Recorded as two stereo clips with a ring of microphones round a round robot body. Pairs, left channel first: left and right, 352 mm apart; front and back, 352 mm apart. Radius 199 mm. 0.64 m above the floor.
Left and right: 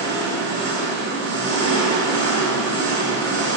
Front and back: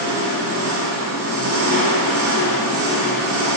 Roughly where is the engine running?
Behind right.